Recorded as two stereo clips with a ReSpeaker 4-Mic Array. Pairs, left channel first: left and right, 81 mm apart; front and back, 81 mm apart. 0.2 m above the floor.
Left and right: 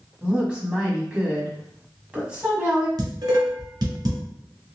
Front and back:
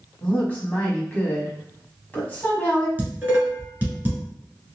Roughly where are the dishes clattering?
Behind right.